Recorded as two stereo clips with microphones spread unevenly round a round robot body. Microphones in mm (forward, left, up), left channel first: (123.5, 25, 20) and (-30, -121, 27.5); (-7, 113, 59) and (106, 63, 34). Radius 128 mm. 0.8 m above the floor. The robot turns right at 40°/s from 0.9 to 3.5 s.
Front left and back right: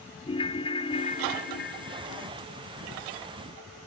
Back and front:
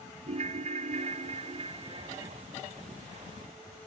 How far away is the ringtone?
About 0.7 m.